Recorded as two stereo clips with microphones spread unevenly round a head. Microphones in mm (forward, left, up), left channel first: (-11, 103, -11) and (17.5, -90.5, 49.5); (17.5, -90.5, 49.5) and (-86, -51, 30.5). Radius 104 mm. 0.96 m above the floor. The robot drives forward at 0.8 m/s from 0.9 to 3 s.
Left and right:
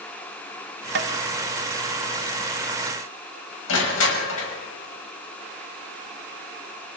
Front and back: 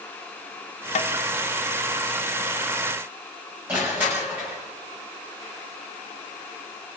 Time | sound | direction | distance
0.9 | tapping | 45° right | 1.0 m
3.7 | crushing | 80° left | 6 m